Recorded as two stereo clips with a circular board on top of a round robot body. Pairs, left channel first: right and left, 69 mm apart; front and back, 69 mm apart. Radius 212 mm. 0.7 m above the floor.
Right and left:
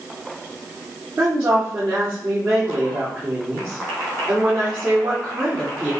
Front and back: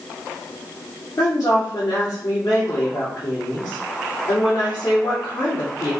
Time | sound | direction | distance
1.2 | a woman speaking | 35° left | 2.5 m